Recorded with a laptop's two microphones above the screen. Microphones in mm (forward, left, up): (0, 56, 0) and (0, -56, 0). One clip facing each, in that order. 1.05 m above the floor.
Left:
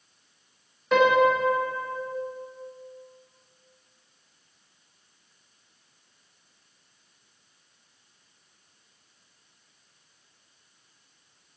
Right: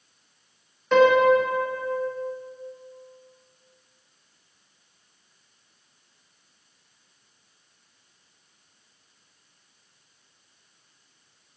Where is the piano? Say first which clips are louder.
Right 3 dB; 5° left (ahead or behind), 1.4 m.